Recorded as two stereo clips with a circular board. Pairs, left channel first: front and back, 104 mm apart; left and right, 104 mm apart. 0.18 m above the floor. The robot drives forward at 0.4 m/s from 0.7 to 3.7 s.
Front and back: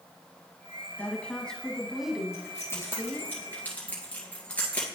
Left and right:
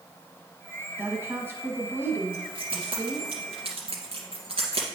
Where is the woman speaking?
50° right, 1.3 m; by 3.3 s 140° right, 1.3 m.